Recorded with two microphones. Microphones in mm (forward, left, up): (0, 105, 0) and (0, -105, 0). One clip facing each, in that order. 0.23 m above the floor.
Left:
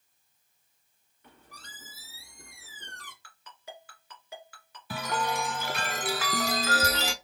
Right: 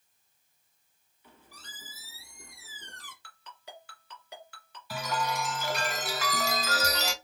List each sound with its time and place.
1.2 s a squeak: 65° left (ahead or behind), 1.9 m
3.2 s a ringtone: 5° left (ahead or behind), 1.9 m
4.9 s a chime: 55° left (ahead or behind), 0.6 m